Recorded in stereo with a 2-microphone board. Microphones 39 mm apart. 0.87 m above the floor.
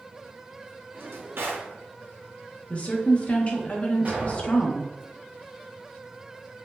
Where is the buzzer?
No buzzer in this recording.